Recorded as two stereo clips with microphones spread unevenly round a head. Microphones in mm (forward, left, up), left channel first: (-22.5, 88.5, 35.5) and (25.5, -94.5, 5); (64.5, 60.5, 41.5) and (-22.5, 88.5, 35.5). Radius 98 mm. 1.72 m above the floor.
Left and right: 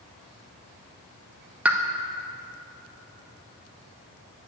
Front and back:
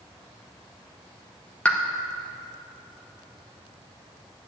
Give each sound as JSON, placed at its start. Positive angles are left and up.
{"t": 1.6, "sound": "a pop", "azimuth_deg": 20, "distance_m": 0.8}